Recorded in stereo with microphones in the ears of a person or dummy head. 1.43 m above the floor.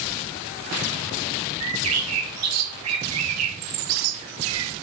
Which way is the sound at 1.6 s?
85° right.